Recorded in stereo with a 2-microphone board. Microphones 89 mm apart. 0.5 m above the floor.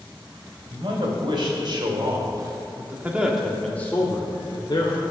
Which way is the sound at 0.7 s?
65° right (ahead or behind).